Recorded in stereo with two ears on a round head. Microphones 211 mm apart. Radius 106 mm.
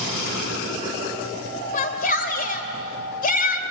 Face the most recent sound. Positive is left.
turn(degrees=35)  # may be behind; listen again after turning